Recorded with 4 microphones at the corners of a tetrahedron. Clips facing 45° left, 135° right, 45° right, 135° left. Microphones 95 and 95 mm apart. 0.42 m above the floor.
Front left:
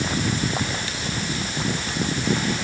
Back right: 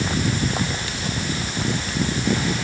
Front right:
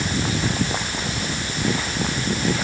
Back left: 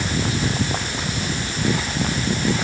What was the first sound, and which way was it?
Only background noise.